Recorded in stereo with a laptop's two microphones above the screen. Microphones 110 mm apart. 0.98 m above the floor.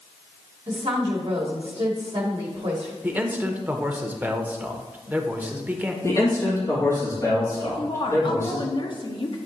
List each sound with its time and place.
0.7 s a woman speaking: 55° right (ahead or behind), 1.2 m
3.0 s a man speaking: 15° right (ahead or behind), 0.8 m
6.0 s a man speaking: 25° left (ahead or behind), 1.7 m
7.6 s a woman speaking: 45° left (ahead or behind), 0.8 m